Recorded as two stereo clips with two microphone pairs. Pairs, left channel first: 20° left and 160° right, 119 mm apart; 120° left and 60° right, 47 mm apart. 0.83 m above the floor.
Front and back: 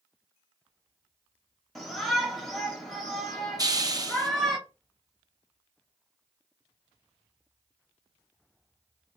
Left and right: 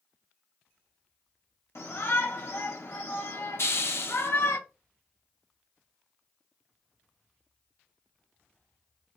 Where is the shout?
110° left, 1.3 m.